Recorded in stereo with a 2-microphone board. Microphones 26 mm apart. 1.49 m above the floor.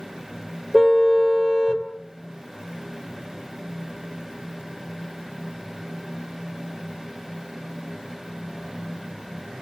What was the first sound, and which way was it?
A car horn, centre (ahead or behind).